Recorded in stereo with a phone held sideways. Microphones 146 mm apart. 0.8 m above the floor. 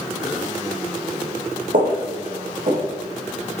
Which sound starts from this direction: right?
Footsteps, at 1.7 s.